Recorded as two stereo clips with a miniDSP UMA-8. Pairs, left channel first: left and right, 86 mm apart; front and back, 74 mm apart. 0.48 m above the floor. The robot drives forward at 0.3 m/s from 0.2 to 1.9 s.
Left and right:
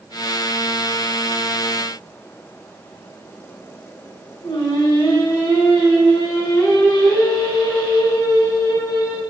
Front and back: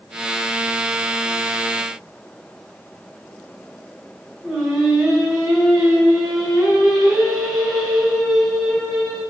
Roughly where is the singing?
Left.